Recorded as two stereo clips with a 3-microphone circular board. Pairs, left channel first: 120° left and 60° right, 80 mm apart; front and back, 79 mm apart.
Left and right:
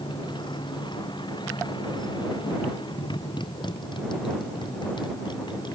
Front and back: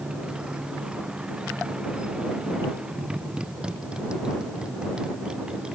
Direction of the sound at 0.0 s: 100° left.